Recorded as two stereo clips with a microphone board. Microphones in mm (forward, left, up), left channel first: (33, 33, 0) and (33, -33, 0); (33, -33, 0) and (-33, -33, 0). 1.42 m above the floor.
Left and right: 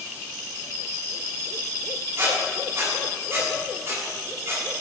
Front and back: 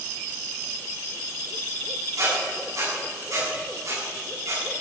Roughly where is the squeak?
Behind right.